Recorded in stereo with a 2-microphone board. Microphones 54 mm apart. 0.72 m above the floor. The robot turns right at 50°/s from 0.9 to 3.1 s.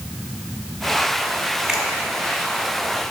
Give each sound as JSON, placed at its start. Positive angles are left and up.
{"t": 1.7, "sound": "a finger snap", "side_deg": -10, "distance_m": 1.7}